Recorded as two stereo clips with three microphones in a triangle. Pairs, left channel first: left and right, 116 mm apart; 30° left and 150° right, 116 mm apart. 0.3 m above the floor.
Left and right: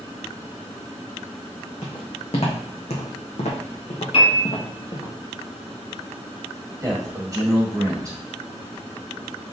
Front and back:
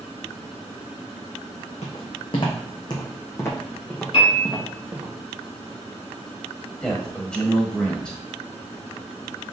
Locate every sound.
1.8 s footsteps: 60° left, 1.4 m; by 5.1 s 140° left, 1.2 m
4.1 s a piano: 60° left, 1.2 m
6.8 s a man speaking: 50° right, 1.4 m